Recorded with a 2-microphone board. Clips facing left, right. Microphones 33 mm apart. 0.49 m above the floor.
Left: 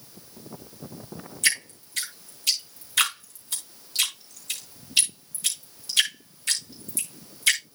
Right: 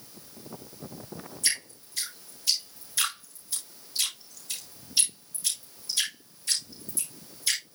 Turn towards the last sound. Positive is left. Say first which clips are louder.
# left 7 dB
turn(degrees=60)  # may be behind; listen again after turning